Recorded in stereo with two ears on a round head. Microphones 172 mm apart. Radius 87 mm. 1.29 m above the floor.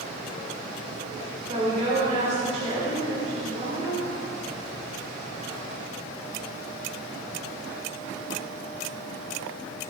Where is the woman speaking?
40° right (ahead or behind), 3.5 m.